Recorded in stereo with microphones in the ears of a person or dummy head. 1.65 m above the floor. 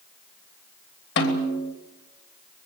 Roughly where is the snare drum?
Left.